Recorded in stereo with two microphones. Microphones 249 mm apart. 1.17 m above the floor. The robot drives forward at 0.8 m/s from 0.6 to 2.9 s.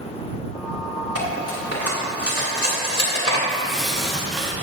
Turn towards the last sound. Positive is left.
turn(degrees=0)  # may be behind; listen again after turning